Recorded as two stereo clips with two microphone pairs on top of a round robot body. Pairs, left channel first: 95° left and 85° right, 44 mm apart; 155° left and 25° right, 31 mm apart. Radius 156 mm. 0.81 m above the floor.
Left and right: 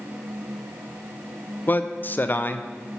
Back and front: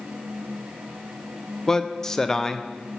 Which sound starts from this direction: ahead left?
A man speaking, at 1.7 s.